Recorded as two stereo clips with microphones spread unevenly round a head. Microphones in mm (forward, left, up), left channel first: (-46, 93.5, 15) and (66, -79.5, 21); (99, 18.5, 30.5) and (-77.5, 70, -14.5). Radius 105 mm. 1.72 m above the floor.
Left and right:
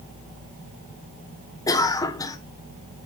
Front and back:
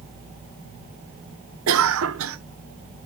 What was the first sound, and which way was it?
A cough, 160° right.